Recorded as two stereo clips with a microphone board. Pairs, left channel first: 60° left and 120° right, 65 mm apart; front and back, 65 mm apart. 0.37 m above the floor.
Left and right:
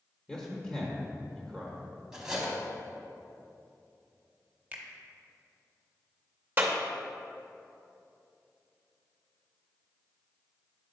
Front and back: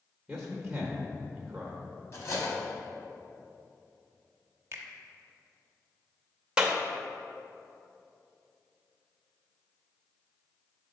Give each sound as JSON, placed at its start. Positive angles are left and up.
{"t": 0.3, "sound": "a man speaking", "azimuth_deg": 105, "distance_m": 1.0}
{"t": 2.1, "sound": "cutlery clinking", "azimuth_deg": -40, "distance_m": 1.2}
{"t": 4.7, "sound": "a finger snap", "azimuth_deg": -170, "distance_m": 0.8}
{"t": 6.6, "sound": "a clap", "azimuth_deg": -115, "distance_m": 0.6}